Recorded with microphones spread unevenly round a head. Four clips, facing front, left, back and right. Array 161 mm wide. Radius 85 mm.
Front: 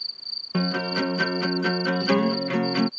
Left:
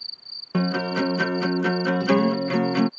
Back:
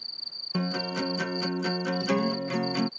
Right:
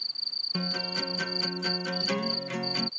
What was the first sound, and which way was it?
A guitar, 55° left.